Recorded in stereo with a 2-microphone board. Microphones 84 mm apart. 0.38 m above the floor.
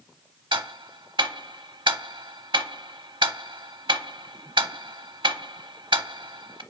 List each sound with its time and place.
0.5 s ticking: 75° right (ahead or behind), 0.5 m